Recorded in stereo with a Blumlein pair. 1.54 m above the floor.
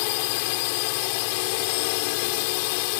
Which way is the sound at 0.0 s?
45° left.